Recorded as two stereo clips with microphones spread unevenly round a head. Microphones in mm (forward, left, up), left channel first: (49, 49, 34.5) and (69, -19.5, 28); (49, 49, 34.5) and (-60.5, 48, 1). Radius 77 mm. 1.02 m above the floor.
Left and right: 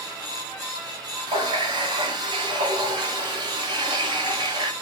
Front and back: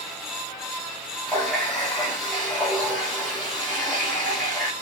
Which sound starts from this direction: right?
A running tap, at 1.3 s.